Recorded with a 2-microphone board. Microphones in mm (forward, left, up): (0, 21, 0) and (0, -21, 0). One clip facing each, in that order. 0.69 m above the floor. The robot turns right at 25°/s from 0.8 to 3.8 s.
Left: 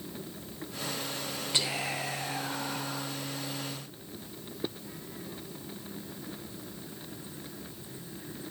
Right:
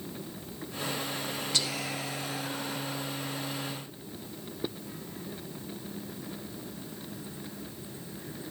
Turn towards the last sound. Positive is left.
turn(degrees=95)